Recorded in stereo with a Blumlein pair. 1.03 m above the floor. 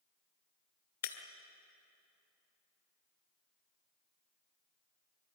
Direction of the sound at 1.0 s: 60° left.